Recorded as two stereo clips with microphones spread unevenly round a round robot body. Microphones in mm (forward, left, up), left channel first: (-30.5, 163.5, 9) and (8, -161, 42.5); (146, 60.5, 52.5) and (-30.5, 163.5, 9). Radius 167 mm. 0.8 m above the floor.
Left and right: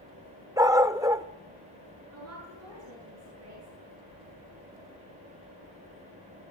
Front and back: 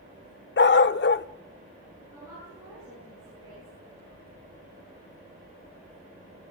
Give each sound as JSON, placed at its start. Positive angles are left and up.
{"t": 0.6, "sound": "a dog barking", "azimuth_deg": -5, "distance_m": 0.8}
{"t": 2.1, "sound": "a woman speaking", "azimuth_deg": -130, "distance_m": 10.0}